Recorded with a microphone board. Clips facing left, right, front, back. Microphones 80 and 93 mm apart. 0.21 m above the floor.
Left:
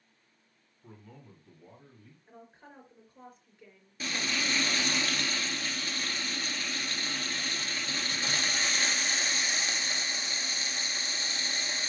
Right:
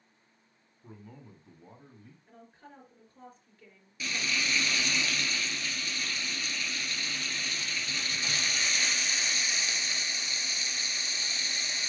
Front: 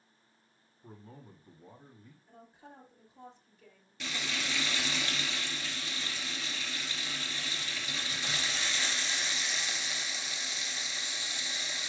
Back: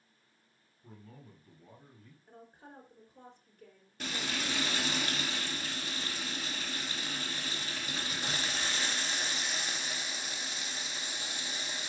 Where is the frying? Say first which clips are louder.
Even, back 1 dB; 135° left, 1.1 m.